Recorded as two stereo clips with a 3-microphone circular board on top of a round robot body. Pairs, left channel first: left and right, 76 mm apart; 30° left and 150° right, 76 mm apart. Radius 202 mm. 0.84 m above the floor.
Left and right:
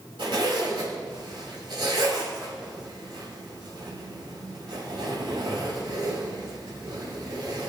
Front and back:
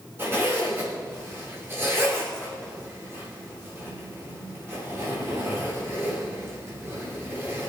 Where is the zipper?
90° right, 4.5 m.